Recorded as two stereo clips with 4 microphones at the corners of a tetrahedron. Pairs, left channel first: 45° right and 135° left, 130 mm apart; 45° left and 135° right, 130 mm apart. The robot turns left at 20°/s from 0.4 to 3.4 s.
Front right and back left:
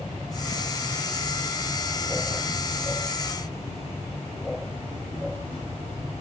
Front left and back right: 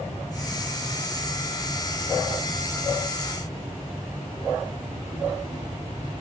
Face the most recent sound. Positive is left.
turn(degrees=-85)